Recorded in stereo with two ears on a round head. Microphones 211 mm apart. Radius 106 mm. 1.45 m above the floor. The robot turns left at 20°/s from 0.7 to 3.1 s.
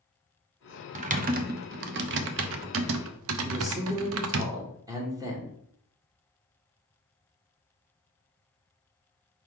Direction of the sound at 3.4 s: 15° right (ahead or behind).